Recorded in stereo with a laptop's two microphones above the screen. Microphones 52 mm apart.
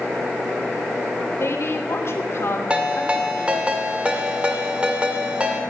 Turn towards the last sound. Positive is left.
turn(degrees=-20)  # may be behind; listen again after turning